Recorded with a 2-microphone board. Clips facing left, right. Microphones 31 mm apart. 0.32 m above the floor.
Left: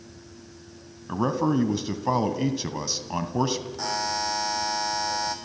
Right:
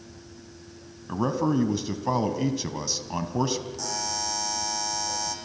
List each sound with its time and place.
1.1 s a man speaking: 10° left (ahead or behind), 2.0 m
3.8 s a buzzer: 35° left (ahead or behind), 2.5 m